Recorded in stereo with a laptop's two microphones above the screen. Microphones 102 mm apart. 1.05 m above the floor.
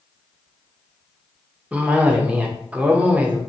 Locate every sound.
1.7 s a cough: 10° right (ahead or behind), 0.6 m